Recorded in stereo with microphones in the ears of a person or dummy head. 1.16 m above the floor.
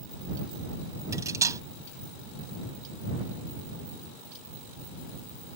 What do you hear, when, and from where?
1.1 s cutlery clinking: 20° right (ahead or behind)